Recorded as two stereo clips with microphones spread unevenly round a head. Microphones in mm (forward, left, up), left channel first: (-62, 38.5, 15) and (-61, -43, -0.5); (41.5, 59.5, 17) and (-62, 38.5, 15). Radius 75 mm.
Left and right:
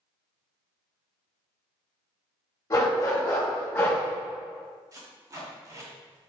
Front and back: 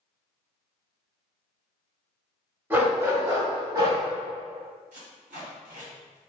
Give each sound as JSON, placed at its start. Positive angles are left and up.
{"t": 2.7, "sound": "a dog barking", "azimuth_deg": 125, "distance_m": 1.2}
{"t": 4.9, "sound": "tape being pulled", "azimuth_deg": -140, "distance_m": 1.2}